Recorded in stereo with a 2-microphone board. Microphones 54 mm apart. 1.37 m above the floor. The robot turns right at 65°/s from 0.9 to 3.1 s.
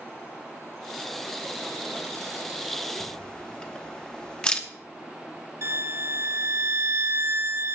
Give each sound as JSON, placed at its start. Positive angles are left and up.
{"t": 3.0, "sound": "a camera shutter", "side_deg": 20, "distance_m": 1.0}
{"t": 5.6, "sound": "a violin", "side_deg": -65, "distance_m": 1.2}